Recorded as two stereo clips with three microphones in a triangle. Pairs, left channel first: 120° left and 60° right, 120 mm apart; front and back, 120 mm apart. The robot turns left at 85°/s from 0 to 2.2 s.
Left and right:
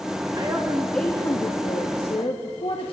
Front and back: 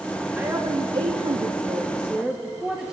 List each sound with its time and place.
0.3 s a woman speaking: 105° right, 1.4 m; by 2.9 s 95° left, 1.4 m